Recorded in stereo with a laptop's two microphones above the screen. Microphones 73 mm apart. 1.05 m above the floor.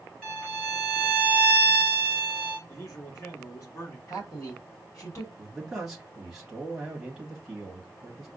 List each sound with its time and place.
0.2 s a violin: 15° left (ahead or behind), 2.5 m
2.7 s a man speaking: 45° left (ahead or behind), 1.1 m
4.1 s a man speaking: 45° left (ahead or behind), 2 m
5.4 s a man speaking: 5° right (ahead or behind), 1.1 m